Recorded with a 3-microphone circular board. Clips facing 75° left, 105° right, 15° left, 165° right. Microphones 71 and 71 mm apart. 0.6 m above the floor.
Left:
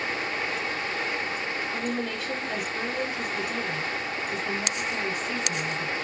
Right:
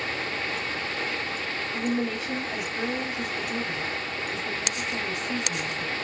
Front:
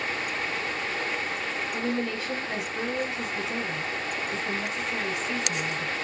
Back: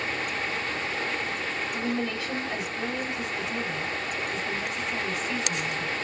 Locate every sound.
1.7 s a woman speaking: 90° left, 3 m